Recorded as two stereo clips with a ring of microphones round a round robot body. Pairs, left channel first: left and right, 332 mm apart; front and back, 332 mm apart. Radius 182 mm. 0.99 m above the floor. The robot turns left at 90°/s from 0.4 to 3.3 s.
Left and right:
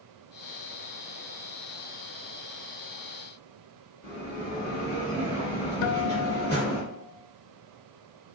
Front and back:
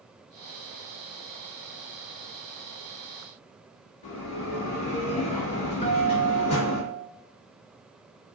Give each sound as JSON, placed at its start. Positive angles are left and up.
{"t": 4.0, "sound": "a bell", "azimuth_deg": -5, "distance_m": 2.0}
{"t": 5.8, "sound": "a guitar", "azimuth_deg": 70, "distance_m": 0.5}